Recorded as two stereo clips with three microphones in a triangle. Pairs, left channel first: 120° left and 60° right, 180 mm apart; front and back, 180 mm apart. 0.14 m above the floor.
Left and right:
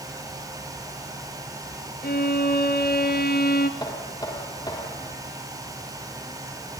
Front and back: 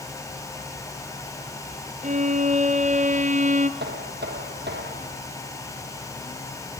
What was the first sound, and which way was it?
A violin, 140° left.